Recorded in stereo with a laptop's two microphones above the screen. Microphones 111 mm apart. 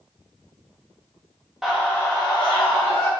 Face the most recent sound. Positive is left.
turn(degrees=65)  # may be behind; listen again after turning